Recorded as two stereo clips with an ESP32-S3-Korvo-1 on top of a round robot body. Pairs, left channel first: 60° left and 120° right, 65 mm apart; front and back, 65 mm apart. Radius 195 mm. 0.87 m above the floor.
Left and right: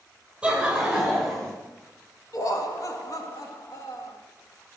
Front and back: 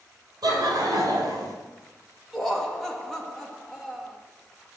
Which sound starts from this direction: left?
Laughter, at 2.3 s.